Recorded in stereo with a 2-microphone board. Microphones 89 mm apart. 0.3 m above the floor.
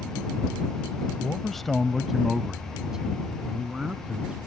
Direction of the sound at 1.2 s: 10° left (ahead or behind).